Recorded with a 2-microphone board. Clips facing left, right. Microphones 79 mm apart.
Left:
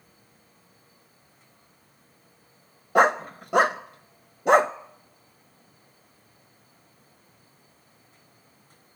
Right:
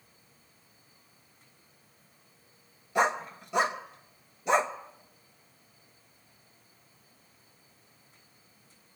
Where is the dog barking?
55° left (ahead or behind), 0.6 m.